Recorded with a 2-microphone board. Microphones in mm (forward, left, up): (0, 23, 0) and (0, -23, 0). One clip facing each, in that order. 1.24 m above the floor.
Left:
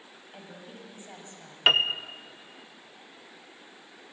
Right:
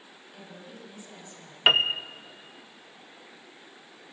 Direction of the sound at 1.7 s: 5° right (ahead or behind).